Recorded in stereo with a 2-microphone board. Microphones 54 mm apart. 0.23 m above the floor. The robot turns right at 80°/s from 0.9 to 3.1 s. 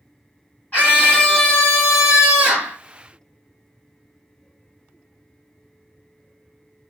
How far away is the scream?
About 1.5 m.